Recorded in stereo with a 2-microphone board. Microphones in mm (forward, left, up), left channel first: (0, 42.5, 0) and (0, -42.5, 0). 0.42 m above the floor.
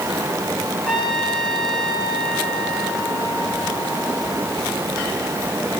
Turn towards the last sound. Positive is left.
turn(degrees=5)  # may be behind; listen again after turning